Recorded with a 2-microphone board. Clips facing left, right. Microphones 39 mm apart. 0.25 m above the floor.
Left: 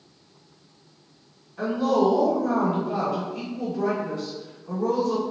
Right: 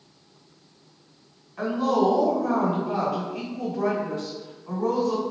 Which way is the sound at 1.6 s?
45° right (ahead or behind).